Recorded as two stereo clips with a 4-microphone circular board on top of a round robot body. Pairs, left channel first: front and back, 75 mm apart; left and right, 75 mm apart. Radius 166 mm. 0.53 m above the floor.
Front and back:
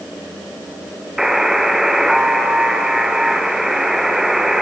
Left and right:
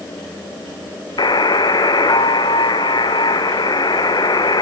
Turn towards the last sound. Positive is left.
turn(degrees=95)